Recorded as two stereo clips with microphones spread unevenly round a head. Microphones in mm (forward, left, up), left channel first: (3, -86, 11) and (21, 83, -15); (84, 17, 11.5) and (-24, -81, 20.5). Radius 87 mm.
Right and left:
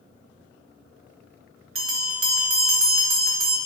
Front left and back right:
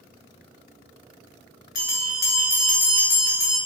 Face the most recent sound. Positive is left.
turn(degrees=85)